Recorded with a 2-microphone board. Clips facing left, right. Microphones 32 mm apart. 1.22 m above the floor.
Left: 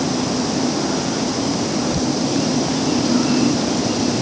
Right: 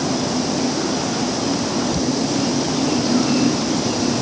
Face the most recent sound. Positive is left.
No sound to turn to.